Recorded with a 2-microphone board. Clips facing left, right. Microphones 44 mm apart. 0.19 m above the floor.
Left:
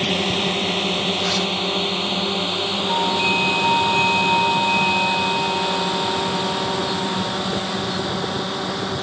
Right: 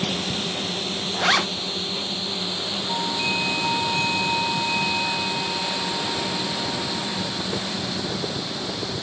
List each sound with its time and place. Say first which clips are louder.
0.0 s a drone: left 6 dB; 50° left (ahead or behind)
1.1 s a zipper: right 1 dB; 60° right (ahead or behind)
2.9 s a doorbell: left 6 dB; 25° left (ahead or behind)